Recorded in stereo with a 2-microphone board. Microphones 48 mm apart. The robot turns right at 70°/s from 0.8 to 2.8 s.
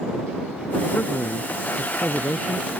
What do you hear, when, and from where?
0.9 s a man speaking: 35° left; by 2.7 s 155° left